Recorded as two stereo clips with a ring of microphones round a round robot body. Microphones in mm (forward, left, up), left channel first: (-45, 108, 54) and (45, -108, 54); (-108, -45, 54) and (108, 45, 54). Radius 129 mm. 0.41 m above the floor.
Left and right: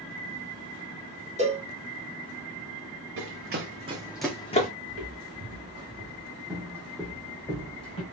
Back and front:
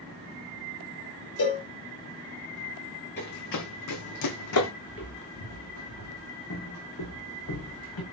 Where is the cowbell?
130° right, 1.5 m.